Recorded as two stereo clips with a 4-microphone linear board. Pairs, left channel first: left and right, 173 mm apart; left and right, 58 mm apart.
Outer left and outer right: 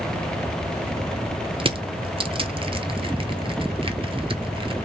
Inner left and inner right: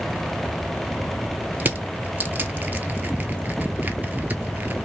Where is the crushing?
30° right (ahead or behind), 0.7 m.